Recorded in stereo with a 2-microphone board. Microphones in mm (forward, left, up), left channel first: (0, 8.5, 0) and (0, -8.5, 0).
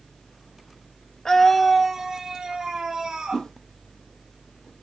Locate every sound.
1.2 s a scream: 30° left (ahead or behind), 0.9 m; by 3.5 s 45° right (ahead or behind), 3 m
3.3 s a whoosh: 80° left, 2 m